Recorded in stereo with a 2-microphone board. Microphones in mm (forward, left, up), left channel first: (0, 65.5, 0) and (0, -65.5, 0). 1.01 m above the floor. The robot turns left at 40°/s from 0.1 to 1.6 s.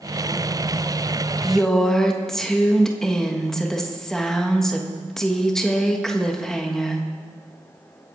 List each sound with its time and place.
1.4 s a woman speaking: 5° right (ahead or behind), 1.5 m; by 7.0 s 5° left (ahead or behind), 1.5 m